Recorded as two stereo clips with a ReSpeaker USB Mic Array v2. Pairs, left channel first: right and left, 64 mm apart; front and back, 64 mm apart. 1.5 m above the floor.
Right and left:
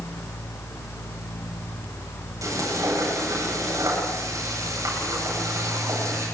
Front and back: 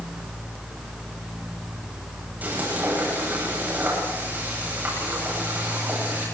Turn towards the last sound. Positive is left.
turn(degrees=115)